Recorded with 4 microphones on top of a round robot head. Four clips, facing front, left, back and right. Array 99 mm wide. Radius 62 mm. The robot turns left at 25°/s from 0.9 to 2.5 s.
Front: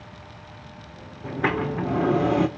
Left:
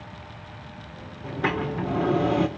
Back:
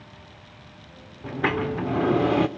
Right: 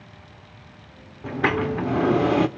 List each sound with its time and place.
1.2 s a sliding door: 80° right, 0.9 m; by 2.5 s 110° right, 0.9 m